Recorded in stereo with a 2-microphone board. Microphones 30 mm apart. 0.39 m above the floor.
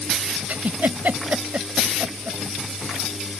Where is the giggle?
70° right (ahead or behind).